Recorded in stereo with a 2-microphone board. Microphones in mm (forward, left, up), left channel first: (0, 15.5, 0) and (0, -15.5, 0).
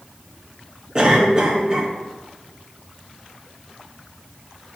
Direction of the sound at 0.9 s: 25° right (ahead or behind).